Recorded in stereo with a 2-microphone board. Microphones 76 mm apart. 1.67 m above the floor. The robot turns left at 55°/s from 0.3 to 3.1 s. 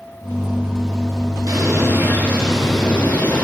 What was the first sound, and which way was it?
A bird, 115° right.